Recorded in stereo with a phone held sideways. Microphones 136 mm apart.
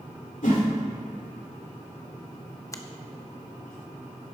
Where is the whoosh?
70° left (ahead or behind), 2.5 m.